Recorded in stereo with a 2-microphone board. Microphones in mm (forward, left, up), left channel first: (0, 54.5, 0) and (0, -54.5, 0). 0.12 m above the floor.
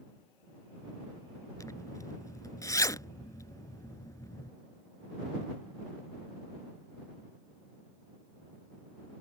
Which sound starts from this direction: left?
A zipper, at 1.6 s.